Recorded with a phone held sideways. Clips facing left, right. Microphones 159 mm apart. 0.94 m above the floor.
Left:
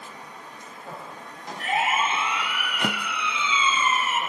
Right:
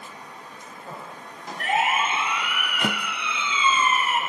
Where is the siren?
70° right (ahead or behind), 4.5 m; by 4.2 s 55° right (ahead or behind), 3 m.